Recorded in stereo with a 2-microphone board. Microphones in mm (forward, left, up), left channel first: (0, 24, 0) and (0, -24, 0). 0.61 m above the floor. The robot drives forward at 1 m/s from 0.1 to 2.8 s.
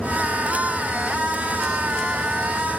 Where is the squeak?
I don't hear a squeak.